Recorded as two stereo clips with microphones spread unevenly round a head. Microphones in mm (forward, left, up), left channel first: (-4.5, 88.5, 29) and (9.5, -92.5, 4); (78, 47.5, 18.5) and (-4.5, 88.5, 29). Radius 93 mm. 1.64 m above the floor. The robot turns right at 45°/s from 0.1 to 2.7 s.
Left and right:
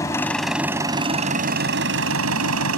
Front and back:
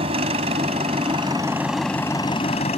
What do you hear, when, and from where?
0.0 s an engine running: 165° left; by 2.8 s 80° right